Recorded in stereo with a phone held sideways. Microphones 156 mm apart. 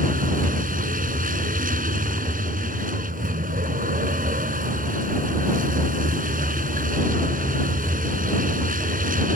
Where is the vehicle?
65° right (ahead or behind).